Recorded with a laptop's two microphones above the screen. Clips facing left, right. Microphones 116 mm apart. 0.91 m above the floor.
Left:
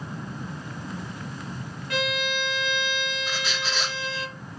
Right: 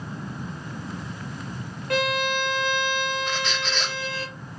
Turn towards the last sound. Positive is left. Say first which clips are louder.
# right 2 dB
turn(degrees=5)  # may be behind; listen again after turning